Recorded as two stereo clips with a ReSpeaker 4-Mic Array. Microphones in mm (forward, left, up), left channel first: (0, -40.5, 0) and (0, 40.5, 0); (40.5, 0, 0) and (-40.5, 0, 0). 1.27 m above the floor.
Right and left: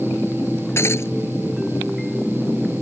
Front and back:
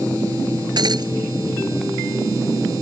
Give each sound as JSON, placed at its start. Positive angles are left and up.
{"t": 0.8, "sound": "breaking glass", "azimuth_deg": -150}